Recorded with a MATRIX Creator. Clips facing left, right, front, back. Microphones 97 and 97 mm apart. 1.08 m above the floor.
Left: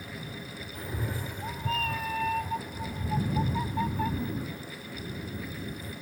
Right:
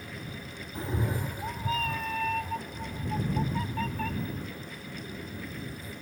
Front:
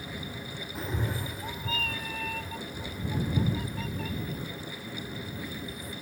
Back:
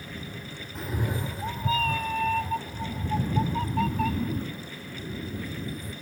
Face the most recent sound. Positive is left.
turn(degrees=160)